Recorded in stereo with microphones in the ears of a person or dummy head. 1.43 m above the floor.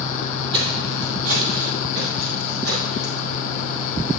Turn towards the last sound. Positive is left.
turn(degrees=-65)  # may be behind; listen again after turning